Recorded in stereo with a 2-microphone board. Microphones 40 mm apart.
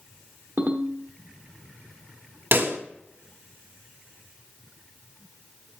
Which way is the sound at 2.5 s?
65° right (ahead or behind).